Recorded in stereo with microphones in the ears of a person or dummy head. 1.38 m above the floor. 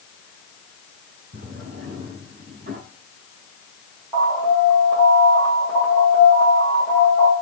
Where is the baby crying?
No baby crying in this recording.